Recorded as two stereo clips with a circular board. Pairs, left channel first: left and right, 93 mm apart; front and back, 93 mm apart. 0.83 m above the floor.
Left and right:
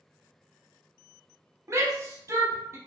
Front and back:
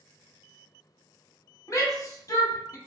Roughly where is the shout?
Ahead right.